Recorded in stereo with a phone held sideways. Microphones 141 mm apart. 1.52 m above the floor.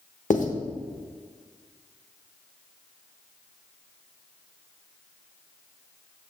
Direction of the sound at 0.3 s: 60° left (ahead or behind).